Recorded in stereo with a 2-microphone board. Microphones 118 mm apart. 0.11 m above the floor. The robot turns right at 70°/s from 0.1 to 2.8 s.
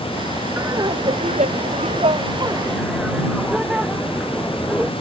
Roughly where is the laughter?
Behind.